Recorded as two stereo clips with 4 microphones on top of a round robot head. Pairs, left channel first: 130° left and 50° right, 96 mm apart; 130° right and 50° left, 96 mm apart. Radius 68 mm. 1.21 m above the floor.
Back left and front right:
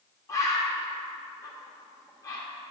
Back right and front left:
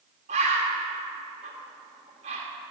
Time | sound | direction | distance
0.3 | a bird | 70° left | 1.2 m